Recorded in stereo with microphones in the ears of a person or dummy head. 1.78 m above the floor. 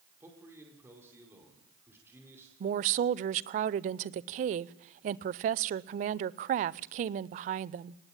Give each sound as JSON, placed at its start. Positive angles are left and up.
{"t": 0.2, "sound": "a man speaking", "side_deg": -10, "distance_m": 5.0}
{"t": 2.6, "sound": "a woman speaking", "side_deg": -40, "distance_m": 0.6}